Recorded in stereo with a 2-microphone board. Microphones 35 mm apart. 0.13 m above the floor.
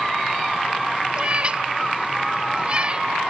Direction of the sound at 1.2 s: 30° right (ahead or behind).